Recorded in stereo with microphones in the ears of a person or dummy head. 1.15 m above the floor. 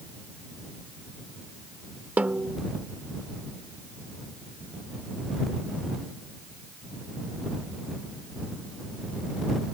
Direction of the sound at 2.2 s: 10° right (ahead or behind).